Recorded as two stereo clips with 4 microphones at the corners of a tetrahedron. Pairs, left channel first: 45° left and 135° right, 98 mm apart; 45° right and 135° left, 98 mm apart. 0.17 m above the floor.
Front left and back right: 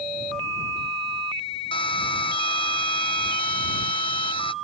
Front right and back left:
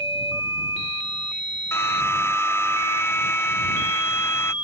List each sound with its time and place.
1.7 s a drill: 20° left